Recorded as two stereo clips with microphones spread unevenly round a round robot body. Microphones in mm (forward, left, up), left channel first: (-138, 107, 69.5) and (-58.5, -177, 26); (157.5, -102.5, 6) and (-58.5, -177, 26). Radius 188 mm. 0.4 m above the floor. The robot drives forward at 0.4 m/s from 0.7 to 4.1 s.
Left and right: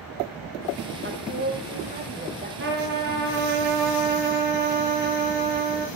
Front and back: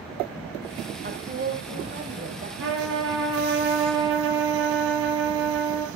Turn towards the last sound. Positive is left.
turn(degrees=-130)